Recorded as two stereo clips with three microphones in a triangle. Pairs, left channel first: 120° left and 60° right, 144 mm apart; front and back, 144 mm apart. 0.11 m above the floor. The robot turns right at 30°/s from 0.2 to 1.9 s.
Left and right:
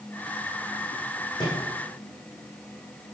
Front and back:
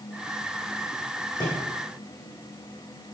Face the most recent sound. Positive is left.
turn(degrees=75)